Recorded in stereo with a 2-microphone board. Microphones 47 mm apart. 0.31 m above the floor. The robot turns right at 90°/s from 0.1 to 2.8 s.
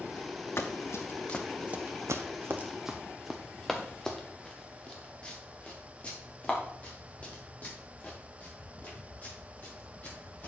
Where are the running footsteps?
65° left (ahead or behind), 1.5 m; by 10.5 s 35° left (ahead or behind), 7.5 m.